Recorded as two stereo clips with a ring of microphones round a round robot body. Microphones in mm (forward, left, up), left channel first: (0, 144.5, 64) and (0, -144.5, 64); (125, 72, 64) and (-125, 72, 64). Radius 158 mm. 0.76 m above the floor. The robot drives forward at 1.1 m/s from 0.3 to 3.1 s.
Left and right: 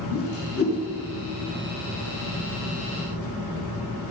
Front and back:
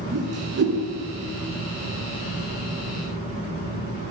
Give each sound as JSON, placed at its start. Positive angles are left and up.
{"t": 0.1, "sound": "a whoosh", "azimuth_deg": 135, "distance_m": 7.0}